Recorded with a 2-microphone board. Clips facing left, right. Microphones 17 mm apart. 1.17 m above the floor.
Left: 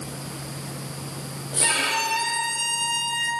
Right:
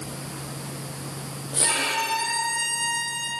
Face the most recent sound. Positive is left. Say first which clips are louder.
# left 2 dB
turn(degrees=50)  # may be behind; listen again after turning